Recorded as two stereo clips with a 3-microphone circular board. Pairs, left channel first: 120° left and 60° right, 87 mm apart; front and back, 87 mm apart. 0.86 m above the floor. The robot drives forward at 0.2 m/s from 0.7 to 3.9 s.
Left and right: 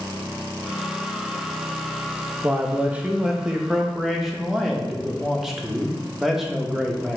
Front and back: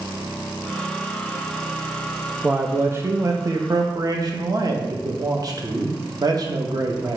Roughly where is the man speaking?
Behind right.